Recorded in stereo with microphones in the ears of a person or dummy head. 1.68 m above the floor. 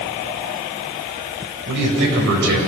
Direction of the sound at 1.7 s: 65° right (ahead or behind).